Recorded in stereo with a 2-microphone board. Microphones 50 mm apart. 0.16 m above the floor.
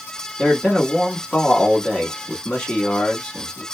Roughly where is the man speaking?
Centre.